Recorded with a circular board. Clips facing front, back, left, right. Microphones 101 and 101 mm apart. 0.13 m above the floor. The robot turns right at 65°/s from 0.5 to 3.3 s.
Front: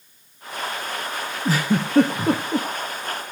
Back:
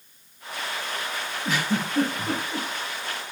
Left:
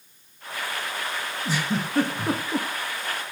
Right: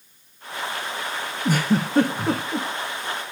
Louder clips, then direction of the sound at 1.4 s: Front 5 dB, right 7 dB; 55° right.